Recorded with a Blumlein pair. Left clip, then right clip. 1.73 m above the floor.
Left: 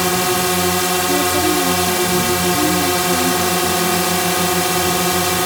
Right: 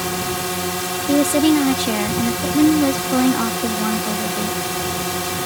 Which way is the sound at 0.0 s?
20° left.